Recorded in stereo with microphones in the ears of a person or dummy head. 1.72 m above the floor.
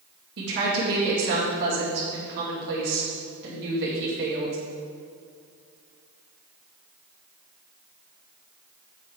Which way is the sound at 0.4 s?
65° right (ahead or behind).